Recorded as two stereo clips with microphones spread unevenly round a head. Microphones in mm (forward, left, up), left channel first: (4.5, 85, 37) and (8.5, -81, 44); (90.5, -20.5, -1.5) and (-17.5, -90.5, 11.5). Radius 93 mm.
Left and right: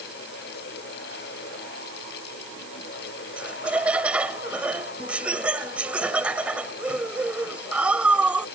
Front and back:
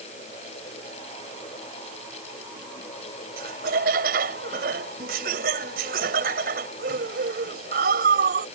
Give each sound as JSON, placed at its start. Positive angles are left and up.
{"t": 3.4, "sound": "laughter", "azimuth_deg": -170}